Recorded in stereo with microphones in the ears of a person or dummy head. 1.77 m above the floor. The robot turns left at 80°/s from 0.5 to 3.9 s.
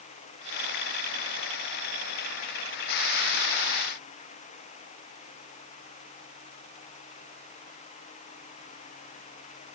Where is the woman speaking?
No woman speaking in this recording.